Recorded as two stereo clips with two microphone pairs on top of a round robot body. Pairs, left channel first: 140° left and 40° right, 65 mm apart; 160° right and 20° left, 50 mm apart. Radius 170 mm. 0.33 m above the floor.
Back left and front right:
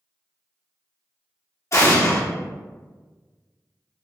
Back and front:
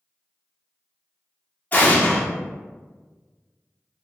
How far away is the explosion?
About 1.1 m.